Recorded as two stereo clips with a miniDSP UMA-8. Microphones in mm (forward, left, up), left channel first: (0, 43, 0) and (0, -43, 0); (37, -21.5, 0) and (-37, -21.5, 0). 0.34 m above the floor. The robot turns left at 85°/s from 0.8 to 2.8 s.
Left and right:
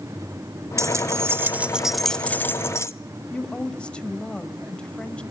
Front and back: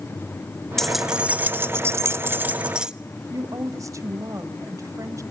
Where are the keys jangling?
80° right, 0.6 m; by 2.9 s 110° left, 0.6 m.